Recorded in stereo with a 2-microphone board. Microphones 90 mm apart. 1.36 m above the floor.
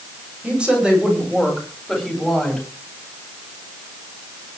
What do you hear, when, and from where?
0.4 s a woman speaking: 10° right (ahead or behind), 8.5 m; by 2.6 s centre (ahead or behind), 10 m